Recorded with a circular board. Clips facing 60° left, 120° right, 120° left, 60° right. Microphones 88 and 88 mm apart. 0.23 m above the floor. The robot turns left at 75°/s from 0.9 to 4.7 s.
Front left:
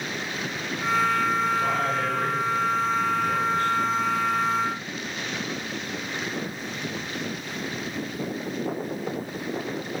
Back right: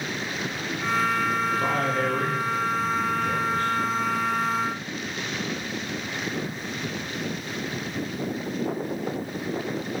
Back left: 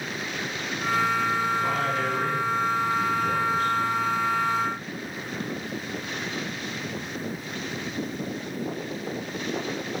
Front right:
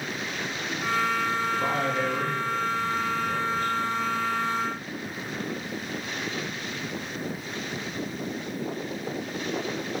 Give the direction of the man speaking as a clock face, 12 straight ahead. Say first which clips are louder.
Even, back left 1 dB; 3 o'clock.